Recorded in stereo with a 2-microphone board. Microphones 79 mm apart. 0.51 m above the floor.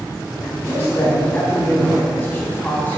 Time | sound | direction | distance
0.7 | a man speaking | 25° left (ahead or behind) | 3.5 m